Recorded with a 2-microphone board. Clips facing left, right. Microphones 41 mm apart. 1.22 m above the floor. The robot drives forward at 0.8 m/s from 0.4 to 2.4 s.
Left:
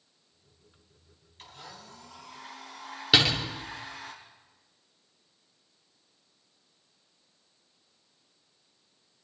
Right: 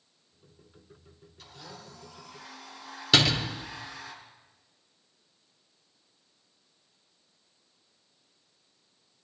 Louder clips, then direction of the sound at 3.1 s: Even; 10° left (ahead or behind).